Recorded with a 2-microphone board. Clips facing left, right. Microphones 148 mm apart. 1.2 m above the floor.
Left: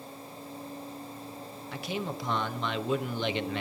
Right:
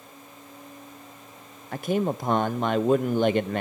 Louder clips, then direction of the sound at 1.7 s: Right 10 dB; 50° right (ahead or behind).